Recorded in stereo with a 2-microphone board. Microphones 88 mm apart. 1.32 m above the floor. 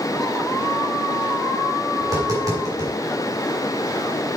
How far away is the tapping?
About 3 m.